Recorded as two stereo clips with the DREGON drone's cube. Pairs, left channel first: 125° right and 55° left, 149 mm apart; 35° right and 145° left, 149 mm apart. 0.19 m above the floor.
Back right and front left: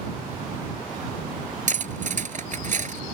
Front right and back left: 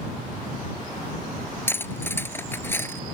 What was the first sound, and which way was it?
Cutlery clinking, 40° left.